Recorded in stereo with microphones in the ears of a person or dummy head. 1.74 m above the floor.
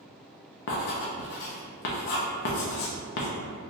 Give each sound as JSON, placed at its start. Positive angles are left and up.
{"t": 0.7, "sound": "writing", "side_deg": 55, "distance_m": 0.6}